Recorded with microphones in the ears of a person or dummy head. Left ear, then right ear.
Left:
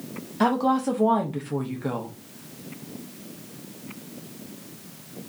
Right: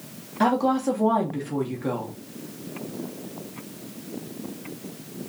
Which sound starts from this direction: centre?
A woman speaking, at 0.4 s.